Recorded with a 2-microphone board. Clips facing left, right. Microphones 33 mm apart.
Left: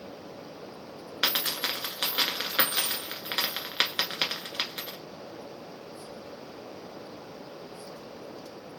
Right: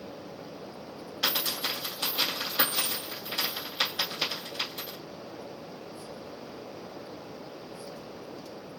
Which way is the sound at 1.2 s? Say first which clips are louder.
Left 1 dB; 70° left (ahead or behind).